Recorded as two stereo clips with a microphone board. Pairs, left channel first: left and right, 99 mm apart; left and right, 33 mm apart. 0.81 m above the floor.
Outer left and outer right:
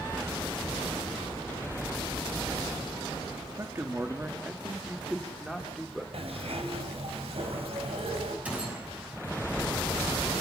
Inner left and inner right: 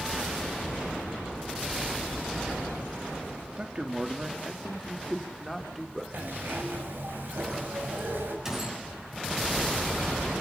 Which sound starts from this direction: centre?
A gunshot, at 8.4 s.